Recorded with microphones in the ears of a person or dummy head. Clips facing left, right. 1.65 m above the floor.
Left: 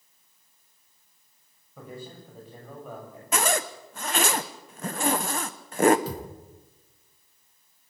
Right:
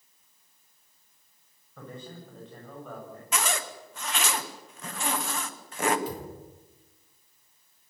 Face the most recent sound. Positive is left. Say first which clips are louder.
# left 1 dB
turn(degrees=35)  # may be behind; listen again after turning